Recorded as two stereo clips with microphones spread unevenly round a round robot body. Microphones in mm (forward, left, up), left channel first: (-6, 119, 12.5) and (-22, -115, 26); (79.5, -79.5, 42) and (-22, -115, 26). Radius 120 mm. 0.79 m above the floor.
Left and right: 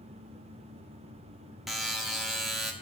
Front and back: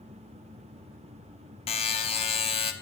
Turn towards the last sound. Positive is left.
turn(degrees=-5)